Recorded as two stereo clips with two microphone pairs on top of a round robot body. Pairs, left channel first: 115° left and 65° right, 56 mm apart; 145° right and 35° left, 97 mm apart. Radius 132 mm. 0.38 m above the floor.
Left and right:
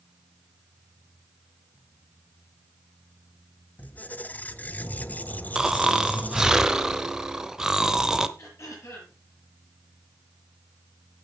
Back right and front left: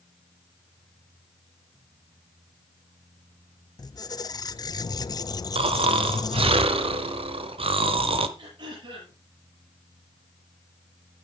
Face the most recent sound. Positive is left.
turn(degrees=75)